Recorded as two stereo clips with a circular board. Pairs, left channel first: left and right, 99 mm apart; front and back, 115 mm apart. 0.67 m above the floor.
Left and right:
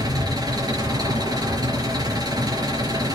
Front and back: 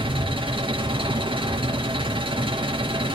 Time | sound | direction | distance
0.0 | an engine running | 140° right | 4.5 m